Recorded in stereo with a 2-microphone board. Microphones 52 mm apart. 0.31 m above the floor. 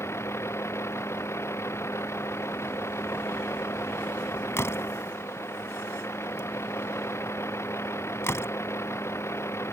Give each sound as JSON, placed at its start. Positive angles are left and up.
{"t": 0.0, "sound": "a vehicle", "side_deg": 55}
{"t": 4.6, "sound": "a door slam", "side_deg": 55}